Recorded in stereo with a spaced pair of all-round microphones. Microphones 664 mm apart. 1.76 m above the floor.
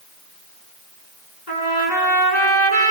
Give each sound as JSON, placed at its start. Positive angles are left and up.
{"t": 1.5, "sound": "a trumpet", "side_deg": 80, "distance_m": 8.5}